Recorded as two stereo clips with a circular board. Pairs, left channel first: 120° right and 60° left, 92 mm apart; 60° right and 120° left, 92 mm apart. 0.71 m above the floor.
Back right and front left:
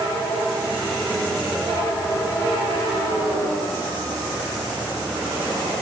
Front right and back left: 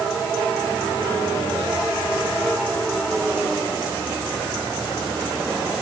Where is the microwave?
No microwave in this recording.